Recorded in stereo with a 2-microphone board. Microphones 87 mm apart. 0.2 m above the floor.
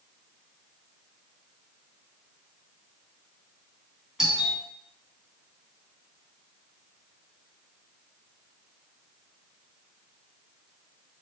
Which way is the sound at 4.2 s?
5° right (ahead or behind).